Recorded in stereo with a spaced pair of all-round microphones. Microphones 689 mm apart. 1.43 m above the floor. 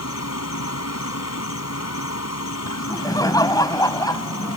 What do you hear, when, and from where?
0.0 s an insect: 20° left (ahead or behind)
2.7 s laughter: 5° left (ahead or behind)